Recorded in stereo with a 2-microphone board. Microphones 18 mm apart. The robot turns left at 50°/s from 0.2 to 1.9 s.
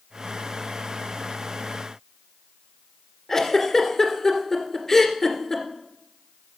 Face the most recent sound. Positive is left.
turn(degrees=30)  # may be behind; listen again after turning